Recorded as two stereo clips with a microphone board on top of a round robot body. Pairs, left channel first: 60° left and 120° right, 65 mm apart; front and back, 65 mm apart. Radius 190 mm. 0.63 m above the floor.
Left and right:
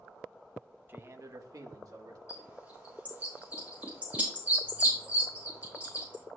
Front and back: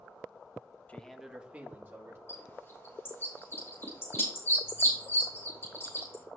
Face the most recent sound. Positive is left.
turn(degrees=-50)